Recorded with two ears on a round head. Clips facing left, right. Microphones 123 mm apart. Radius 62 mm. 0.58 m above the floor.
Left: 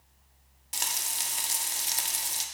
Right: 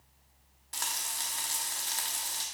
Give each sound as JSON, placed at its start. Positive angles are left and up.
{"t": 0.7, "sound": "frying", "side_deg": 25, "distance_m": 1.1}